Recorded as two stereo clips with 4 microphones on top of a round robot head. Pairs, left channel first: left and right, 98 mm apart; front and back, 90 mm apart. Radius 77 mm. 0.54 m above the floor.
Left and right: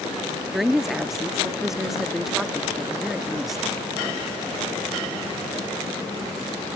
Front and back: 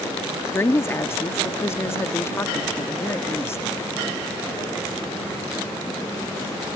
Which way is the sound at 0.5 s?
5° right.